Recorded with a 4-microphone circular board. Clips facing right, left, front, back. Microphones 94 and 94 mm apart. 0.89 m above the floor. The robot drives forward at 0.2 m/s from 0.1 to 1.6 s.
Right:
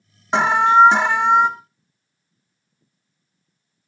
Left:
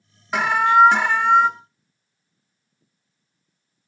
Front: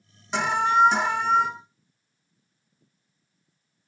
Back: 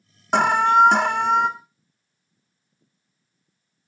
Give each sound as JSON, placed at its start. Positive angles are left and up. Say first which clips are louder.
{"t": 0.3, "sound": "an alarm", "louder": "right 2 dB, back 5 dB", "azimuth_deg": -150, "distance_m": 0.6}